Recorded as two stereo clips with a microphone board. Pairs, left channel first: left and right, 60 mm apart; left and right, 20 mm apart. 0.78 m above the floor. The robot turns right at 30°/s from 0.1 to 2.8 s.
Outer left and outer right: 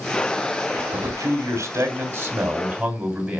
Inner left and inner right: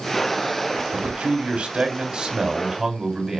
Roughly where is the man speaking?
Right.